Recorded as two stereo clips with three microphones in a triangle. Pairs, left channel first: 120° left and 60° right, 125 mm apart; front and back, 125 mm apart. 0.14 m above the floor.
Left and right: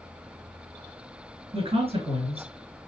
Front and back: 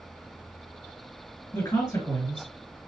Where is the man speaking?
55° right, 2.5 m.